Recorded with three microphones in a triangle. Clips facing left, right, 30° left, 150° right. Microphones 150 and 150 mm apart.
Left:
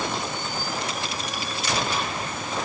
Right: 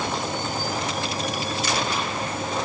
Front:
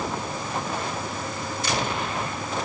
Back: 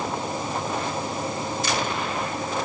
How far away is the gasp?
No gasp in this recording.